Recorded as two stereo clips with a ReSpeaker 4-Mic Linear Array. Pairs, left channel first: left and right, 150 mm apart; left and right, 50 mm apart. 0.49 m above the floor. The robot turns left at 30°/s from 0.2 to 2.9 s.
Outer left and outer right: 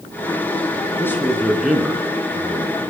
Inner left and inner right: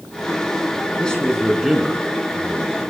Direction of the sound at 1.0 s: 15° left.